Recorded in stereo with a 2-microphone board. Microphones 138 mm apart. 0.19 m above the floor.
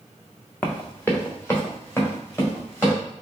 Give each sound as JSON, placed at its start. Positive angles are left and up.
{"t": 0.6, "sound": "running footsteps", "side_deg": 15, "distance_m": 0.9}